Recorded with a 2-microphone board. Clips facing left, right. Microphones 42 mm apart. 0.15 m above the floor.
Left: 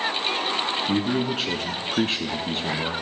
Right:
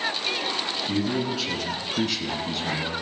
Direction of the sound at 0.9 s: 35° left (ahead or behind).